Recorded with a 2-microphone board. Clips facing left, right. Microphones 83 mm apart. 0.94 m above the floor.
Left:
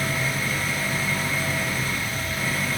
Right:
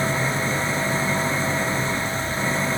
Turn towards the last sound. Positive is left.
turn(degrees=-25)  # may be behind; listen again after turning